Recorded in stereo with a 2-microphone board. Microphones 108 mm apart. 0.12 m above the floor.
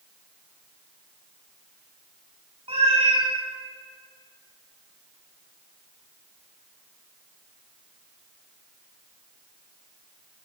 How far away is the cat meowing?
About 1.7 m.